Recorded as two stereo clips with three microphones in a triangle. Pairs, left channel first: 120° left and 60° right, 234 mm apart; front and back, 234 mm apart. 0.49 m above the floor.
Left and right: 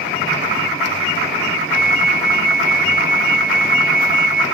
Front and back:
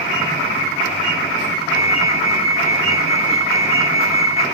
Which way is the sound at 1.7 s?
105° right.